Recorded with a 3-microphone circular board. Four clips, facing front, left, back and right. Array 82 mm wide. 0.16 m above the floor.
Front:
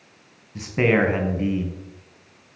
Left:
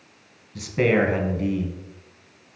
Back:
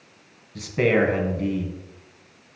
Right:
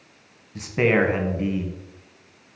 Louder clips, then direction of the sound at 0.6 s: Even, even; 45° right.